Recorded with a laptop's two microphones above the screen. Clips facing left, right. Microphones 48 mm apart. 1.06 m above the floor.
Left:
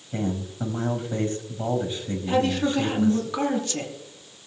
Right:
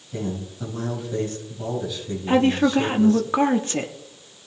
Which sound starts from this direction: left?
A man speaking, at 0.1 s.